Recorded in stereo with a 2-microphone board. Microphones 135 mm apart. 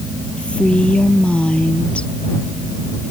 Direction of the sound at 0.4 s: 10° left (ahead or behind).